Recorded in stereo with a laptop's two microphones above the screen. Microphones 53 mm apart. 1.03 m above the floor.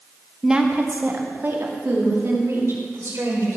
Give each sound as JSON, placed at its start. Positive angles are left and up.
{"t": 0.4, "sound": "a woman speaking", "side_deg": -10, "distance_m": 0.8}